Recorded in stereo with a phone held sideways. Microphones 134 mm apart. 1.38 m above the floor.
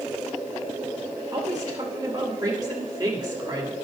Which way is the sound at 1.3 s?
30° right (ahead or behind).